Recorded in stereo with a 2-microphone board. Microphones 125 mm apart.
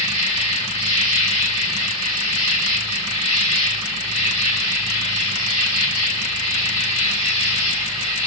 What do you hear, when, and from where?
0.0 s an insect: 65° left (ahead or behind), 2.5 m